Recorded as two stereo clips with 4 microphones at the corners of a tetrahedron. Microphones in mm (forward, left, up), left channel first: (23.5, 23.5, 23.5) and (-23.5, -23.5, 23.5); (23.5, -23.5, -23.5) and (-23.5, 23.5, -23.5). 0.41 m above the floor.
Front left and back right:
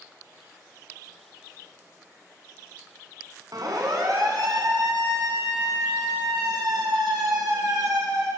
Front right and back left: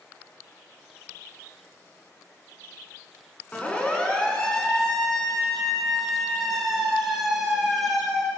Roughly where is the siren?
Behind right.